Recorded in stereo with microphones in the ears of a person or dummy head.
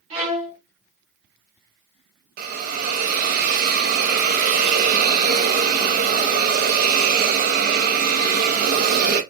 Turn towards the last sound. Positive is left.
turn(degrees=-50)  # may be behind; listen again after turning